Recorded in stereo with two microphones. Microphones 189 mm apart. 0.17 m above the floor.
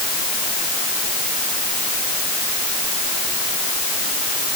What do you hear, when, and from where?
Only background noise.